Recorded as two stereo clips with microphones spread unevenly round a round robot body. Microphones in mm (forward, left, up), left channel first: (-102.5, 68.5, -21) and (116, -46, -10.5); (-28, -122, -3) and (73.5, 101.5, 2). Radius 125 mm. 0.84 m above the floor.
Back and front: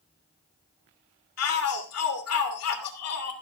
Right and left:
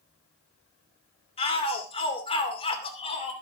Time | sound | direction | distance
1.4 | a shout | straight behind | 2.5 m